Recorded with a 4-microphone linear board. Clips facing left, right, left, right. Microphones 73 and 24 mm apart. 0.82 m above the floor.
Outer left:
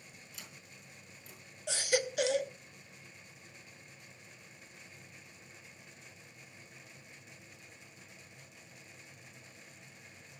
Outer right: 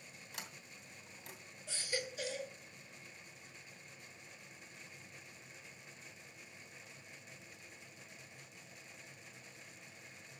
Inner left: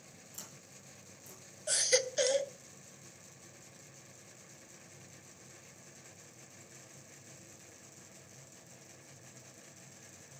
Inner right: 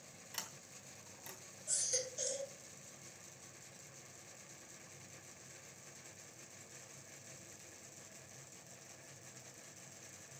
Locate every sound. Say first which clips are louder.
0.3 s a sliding door: outer right 5 dB, inner right 5 dB; 75° right (ahead or behind), 2.5 m
1.7 s a baby crying: outer left 10 dB, inner left 10 dB; 85° left, 0.6 m